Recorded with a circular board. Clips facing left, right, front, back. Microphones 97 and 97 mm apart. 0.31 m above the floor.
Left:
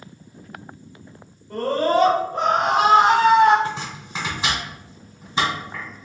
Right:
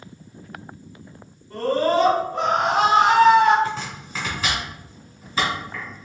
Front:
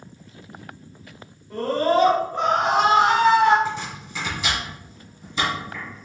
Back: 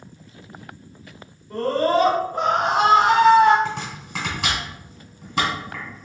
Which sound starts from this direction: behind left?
Chopping, at 3.6 s.